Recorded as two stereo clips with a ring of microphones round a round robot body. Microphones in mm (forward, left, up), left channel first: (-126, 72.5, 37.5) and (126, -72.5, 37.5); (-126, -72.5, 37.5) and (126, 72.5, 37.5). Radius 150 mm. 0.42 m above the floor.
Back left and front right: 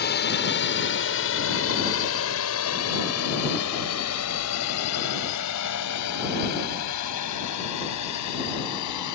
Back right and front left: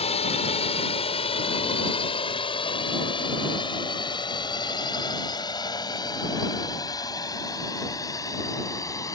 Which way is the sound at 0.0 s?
160° left.